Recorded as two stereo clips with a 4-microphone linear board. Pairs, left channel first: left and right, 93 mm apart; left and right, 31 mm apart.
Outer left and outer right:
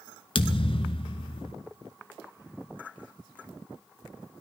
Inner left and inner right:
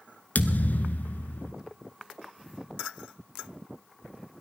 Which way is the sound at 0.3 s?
65° left (ahead or behind).